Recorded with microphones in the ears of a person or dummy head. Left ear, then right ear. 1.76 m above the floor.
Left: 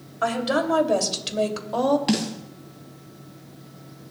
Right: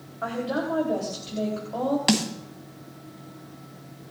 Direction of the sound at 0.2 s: 75° left (ahead or behind).